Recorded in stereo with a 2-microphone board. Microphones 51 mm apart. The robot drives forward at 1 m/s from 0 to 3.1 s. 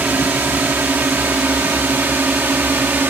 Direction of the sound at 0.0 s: 35° right (ahead or behind).